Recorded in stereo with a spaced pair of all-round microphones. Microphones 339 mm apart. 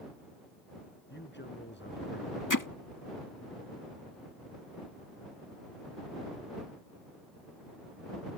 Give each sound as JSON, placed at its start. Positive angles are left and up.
{"t": 1.1, "sound": "a man speaking", "side_deg": 30}
{"t": 2.5, "sound": "hammering", "side_deg": 65}